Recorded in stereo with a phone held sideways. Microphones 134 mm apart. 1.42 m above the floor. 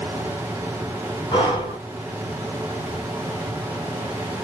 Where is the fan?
15° right (ahead or behind), 0.9 m.